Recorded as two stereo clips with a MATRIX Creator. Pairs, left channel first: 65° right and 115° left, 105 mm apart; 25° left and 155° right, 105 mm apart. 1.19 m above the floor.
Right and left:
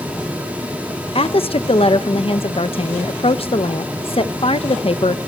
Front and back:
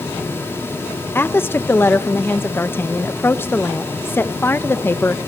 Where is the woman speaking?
45° right, 1.0 m.